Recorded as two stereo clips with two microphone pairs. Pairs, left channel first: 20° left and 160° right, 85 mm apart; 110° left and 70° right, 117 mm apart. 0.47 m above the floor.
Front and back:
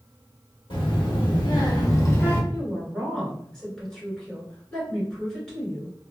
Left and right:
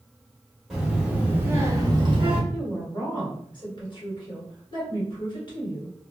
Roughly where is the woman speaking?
Left.